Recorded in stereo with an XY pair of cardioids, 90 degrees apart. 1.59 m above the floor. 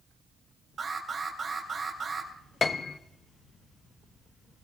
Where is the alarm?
50° right, 4 m.